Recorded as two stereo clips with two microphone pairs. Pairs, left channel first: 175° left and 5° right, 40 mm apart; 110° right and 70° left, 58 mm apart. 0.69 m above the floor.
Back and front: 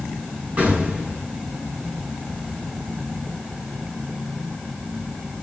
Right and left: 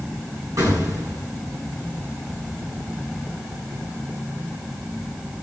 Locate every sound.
0.6 s an explosion: 50° left, 8.5 m